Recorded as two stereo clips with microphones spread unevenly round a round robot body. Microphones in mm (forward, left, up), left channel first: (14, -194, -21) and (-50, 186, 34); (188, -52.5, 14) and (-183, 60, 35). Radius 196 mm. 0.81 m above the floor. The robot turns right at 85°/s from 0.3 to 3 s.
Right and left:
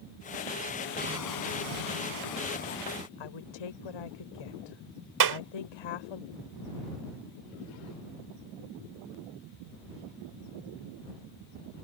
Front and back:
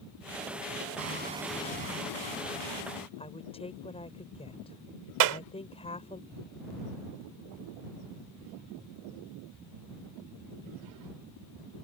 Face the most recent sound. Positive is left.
turn(degrees=145)